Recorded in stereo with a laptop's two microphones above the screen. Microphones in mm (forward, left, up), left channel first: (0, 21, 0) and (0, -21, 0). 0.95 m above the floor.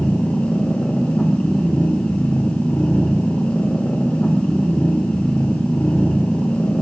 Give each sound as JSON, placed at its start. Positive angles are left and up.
{"t": 0.0, "sound": "a machine running", "side_deg": 40, "distance_m": 1.0}